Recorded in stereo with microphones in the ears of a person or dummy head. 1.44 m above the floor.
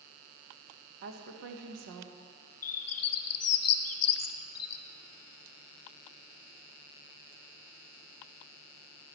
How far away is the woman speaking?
About 1.1 m.